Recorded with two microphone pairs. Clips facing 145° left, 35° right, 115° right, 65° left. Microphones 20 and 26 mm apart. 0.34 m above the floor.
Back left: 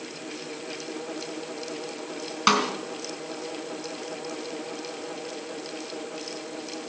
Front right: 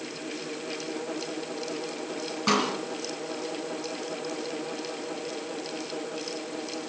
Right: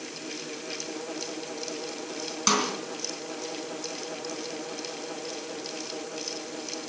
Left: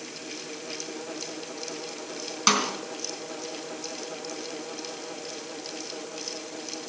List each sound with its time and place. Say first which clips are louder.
2.5 s a snare drum: back left 3 dB, left 2 dB; 135° left, 3 m